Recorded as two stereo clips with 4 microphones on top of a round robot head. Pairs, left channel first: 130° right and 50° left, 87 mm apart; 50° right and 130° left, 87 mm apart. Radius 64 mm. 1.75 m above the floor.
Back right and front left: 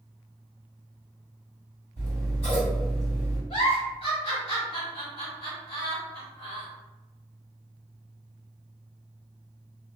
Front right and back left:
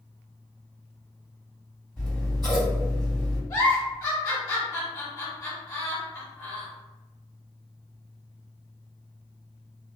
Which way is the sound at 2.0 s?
125° right.